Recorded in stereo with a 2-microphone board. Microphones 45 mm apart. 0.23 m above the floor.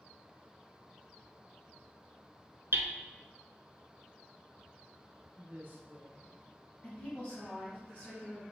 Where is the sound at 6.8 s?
30° left (ahead or behind), 1.8 m.